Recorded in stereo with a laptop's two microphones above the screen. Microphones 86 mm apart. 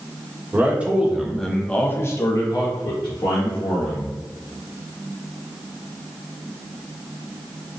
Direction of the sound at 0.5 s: 20° right (ahead or behind).